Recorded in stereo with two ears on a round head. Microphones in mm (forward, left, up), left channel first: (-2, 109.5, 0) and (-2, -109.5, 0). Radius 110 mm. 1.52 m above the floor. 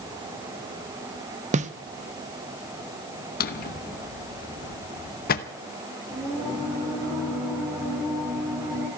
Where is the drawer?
40° left (ahead or behind), 0.9 m.